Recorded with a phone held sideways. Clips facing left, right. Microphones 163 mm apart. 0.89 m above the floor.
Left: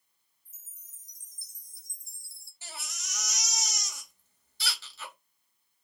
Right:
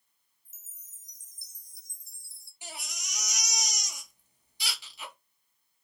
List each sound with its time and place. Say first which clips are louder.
0.5 s a chime: right 2 dB; 20° right (ahead or behind), 1.2 m
2.6 s a baby crying: right 2 dB; 15° right (ahead or behind), 1.9 m